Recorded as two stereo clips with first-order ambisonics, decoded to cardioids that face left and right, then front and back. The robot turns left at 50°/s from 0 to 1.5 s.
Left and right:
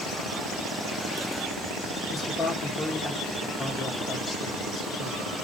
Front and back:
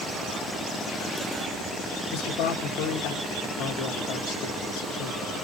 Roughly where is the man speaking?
Ahead.